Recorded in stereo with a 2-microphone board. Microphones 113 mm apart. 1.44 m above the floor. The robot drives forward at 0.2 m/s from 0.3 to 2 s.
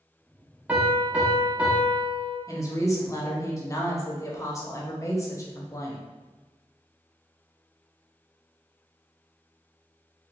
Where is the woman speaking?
30° left (ahead or behind), 0.7 m.